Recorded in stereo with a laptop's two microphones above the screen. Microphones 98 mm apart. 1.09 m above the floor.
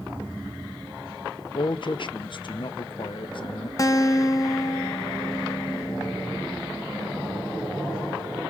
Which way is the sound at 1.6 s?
55° left (ahead or behind).